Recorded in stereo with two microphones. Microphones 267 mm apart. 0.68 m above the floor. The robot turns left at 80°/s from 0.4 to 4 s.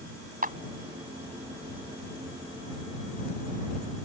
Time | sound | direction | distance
0.4 | a clap | 35° right (ahead or behind) | ?